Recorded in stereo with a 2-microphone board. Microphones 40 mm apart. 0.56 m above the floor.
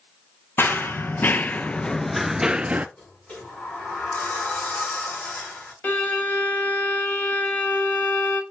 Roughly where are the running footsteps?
Left.